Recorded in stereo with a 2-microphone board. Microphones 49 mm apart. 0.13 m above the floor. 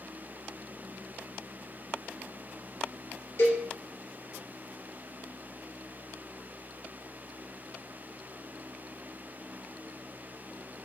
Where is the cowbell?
60° left (ahead or behind), 1.5 m.